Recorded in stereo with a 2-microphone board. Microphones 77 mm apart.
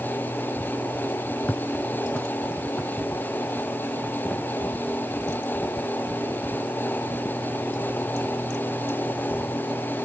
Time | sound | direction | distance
1.5 | footsteps | 20° left (ahead or behind) | 1.2 m